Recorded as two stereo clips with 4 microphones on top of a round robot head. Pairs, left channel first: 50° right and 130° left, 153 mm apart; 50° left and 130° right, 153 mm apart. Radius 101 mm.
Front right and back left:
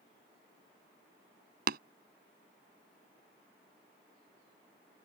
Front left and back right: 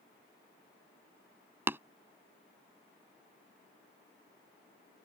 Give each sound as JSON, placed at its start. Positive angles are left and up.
{"t": 1.7, "sound": "tapping", "azimuth_deg": 155}